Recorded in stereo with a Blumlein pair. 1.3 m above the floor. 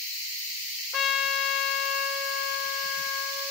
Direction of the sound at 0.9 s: 25° left.